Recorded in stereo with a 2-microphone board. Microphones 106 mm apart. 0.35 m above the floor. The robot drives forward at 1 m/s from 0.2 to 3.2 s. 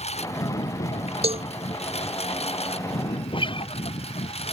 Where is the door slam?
I don't hear a door slam.